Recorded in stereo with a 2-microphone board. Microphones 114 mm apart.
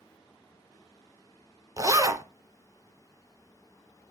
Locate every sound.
1.8 s a zipper: 30° right (ahead or behind), 0.8 m